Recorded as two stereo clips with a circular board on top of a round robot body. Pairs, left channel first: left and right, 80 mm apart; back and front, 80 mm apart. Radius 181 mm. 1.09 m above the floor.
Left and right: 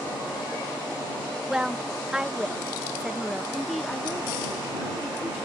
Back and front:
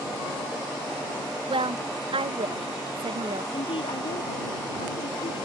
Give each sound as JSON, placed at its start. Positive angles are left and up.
{"t": 1.5, "sound": "a woman speaking", "azimuth_deg": -5}
{"t": 3.5, "sound": "a woman speaking", "azimuth_deg": 180}